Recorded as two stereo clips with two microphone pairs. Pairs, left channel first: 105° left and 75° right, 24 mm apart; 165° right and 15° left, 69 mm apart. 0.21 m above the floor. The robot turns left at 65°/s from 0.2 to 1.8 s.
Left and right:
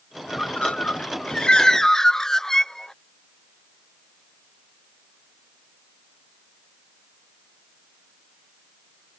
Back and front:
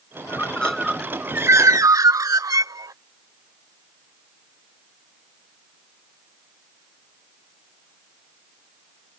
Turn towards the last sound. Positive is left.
turn(degrees=40)